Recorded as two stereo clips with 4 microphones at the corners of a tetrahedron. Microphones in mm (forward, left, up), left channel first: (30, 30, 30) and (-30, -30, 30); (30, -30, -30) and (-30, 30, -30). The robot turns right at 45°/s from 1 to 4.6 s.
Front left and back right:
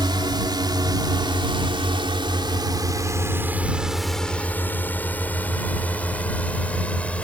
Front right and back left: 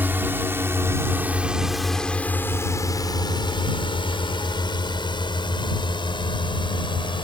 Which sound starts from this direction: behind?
A drone, at 0.0 s.